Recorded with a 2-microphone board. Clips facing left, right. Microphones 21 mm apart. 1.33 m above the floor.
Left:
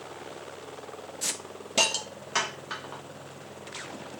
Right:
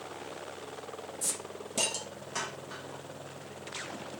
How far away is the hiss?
About 0.9 m.